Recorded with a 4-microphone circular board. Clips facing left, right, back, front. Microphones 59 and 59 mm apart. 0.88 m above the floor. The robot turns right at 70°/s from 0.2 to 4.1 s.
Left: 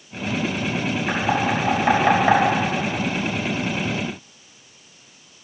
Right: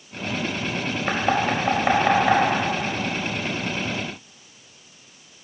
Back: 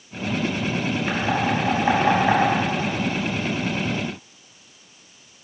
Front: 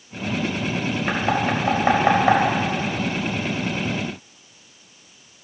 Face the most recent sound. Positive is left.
turn(degrees=140)